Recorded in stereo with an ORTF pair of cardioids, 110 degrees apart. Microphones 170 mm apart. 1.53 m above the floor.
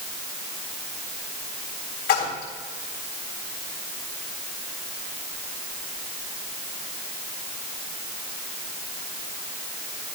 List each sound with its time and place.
2.1 s a splash: 70° left, 3.5 m